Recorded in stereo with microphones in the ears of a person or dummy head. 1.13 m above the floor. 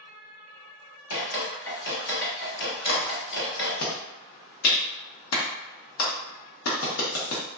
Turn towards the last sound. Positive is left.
turn(degrees=80)